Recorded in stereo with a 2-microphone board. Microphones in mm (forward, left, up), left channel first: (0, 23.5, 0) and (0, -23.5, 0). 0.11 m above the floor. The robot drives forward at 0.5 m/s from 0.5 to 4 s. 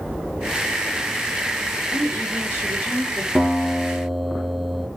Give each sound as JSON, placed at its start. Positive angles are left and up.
{"t": 1.9, "sound": "a woman speaking", "side_deg": -45, "distance_m": 1.9}
{"t": 3.4, "sound": "a guitar", "side_deg": 0, "distance_m": 1.0}